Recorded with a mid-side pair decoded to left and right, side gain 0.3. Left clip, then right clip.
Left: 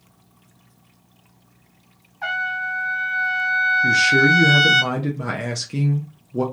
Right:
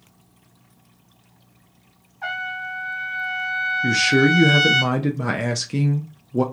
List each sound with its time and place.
2.2 s a trumpet: 55° left, 0.9 m
3.8 s a man speaking: 35° right, 0.7 m